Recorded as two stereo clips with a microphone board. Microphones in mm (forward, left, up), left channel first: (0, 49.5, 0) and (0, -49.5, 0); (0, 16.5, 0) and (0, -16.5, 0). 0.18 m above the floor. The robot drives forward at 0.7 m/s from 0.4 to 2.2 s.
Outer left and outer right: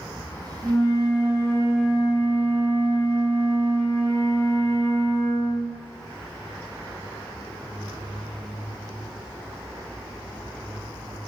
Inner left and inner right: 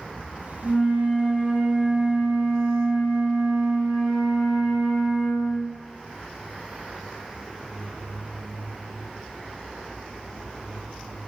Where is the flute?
35° left (ahead or behind), 2 m; by 5.9 s 25° left (ahead or behind), 3 m.